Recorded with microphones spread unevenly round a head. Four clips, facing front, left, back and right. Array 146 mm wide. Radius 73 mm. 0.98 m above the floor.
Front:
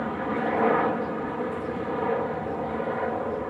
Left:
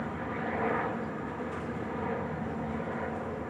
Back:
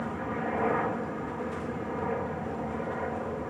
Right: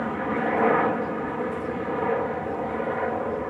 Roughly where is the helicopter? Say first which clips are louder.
Right 9 dB, front 5 dB; ahead right.